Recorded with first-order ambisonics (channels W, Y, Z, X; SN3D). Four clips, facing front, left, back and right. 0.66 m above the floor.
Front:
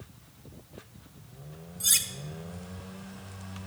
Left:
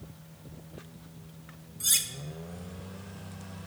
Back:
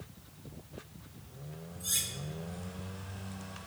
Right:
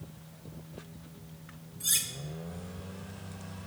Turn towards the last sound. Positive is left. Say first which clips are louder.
# left 3 dB, front 8 dB
turn(degrees=35)